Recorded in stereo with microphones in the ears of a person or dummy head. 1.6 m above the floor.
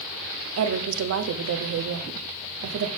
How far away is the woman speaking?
About 0.7 m.